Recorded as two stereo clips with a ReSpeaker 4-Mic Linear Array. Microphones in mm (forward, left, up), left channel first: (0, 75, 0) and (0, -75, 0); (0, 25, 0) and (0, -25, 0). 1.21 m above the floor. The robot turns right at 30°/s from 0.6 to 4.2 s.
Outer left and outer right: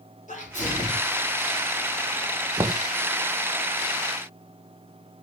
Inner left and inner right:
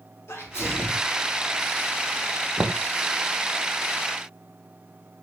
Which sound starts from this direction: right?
Knocking, at 2.6 s.